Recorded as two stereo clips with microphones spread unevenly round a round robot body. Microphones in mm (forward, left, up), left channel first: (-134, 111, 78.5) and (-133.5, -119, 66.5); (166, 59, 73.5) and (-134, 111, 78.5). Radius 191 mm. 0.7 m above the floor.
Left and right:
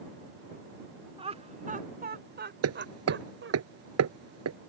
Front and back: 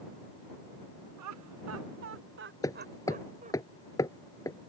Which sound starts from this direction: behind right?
Laughter, at 1.2 s.